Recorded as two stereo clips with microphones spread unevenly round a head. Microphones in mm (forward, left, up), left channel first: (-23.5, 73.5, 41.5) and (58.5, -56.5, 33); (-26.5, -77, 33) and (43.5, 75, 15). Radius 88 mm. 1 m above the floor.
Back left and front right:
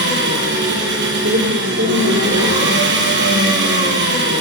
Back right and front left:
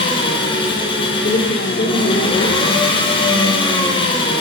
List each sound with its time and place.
0.0 s an engine running: 55° right, 7 m
1.2 s a woman speaking: 65° right, 4.5 m